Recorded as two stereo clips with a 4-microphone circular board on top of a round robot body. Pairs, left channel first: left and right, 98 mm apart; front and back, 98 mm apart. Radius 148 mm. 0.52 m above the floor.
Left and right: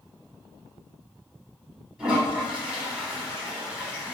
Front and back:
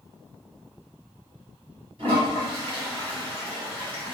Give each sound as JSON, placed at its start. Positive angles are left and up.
{"t": 2.0, "sound": "a toilet flushing", "azimuth_deg": -175, "distance_m": 1.7}